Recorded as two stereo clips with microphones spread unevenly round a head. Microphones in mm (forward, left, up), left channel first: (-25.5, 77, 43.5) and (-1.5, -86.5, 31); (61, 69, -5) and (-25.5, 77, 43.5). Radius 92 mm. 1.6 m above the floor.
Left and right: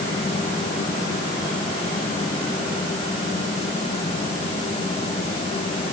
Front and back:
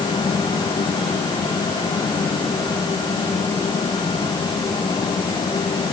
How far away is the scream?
I don't hear a scream.